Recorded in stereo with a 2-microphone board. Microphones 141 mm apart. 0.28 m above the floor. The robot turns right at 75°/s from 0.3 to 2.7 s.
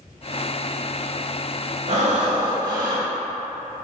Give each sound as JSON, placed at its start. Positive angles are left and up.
{"t": 1.9, "sound": "breathing", "azimuth_deg": -105, "distance_m": 0.7}